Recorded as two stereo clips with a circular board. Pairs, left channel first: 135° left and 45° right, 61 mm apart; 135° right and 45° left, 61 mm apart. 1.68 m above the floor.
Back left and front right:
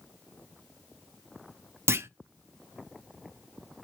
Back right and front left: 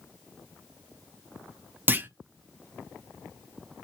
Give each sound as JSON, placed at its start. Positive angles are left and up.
{"t": 1.9, "sound": "a clunk", "azimuth_deg": -10, "distance_m": 0.5}